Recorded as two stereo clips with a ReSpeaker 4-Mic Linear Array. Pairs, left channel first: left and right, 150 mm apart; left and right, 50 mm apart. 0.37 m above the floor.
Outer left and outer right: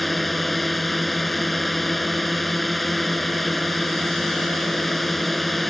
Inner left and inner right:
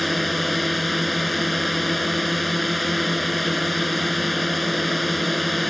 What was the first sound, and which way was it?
A drone, centre (ahead or behind).